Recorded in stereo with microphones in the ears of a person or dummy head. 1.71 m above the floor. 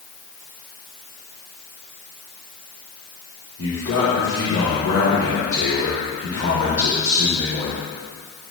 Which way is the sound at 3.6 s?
65° left (ahead or behind).